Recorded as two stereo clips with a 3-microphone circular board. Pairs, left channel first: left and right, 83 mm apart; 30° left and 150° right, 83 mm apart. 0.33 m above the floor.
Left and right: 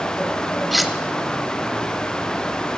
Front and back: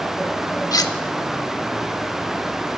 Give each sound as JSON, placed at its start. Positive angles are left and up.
{"t": 0.7, "sound": "cutlery clinking", "azimuth_deg": 0, "distance_m": 0.8}